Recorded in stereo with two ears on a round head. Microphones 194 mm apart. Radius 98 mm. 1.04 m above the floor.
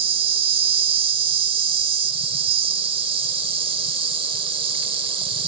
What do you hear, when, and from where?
0.0 s an insect: 25° right (ahead or behind)